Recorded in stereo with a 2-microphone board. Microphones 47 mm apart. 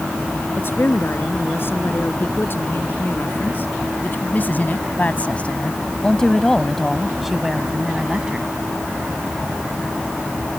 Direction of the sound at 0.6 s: 55° left (ahead or behind).